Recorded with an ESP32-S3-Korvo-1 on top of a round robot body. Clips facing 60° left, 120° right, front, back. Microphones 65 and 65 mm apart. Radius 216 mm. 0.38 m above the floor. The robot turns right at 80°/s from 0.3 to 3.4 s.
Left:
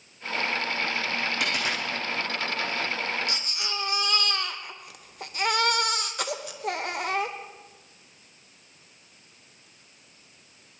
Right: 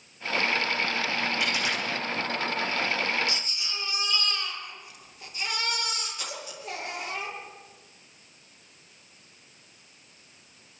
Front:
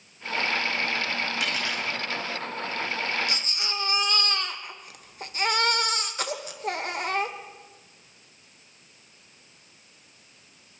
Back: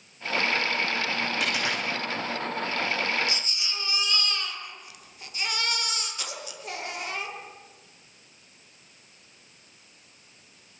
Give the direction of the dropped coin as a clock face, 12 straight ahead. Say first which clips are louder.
Even, back 1 dB; 9 o'clock.